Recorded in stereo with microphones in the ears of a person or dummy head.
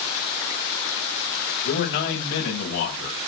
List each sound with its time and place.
1.6 s a man speaking: 75° left (ahead or behind), 6.5 m; by 3.2 s 80° left, 8.5 m